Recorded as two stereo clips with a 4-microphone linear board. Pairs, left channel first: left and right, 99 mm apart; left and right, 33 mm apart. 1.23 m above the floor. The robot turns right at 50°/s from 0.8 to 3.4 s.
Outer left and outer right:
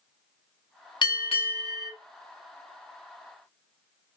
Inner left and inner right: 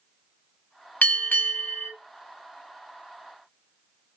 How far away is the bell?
About 0.8 m.